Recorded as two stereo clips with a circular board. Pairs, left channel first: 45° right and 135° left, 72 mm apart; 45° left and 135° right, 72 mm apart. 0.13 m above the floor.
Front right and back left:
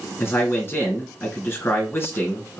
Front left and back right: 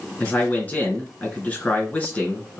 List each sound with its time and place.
0.2 s a man speaking: 10° right, 2 m